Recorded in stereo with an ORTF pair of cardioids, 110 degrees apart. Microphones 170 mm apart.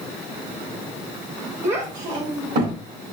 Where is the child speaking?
45° right, 1.1 m; by 2.8 s 60° right, 1.6 m.